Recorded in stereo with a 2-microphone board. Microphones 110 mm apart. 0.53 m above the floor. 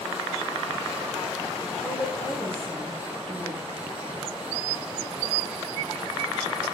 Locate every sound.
1.8 s a woman speaking: 45° right (ahead or behind), 6.5 m